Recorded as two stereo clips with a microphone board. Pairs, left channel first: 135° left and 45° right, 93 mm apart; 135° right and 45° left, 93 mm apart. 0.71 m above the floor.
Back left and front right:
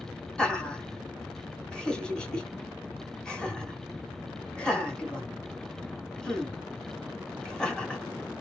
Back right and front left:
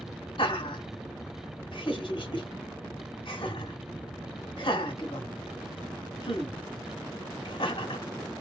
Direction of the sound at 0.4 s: 145° right.